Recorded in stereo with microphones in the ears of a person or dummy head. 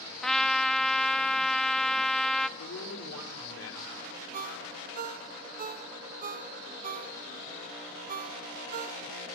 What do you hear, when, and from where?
0.2 s a trumpet: 5° left (ahead or behind), 0.9 m
2.6 s a man speaking: 85° left, 5 m
4.3 s a ringtone: 45° right (ahead or behind), 1.4 m